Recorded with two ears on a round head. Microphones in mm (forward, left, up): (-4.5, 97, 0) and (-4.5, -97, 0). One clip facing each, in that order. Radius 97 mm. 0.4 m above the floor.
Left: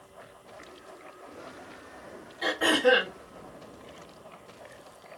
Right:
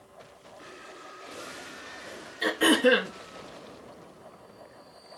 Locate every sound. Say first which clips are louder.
2.4 s throat clearing: right 2 dB; 40° right (ahead or behind), 5.5 m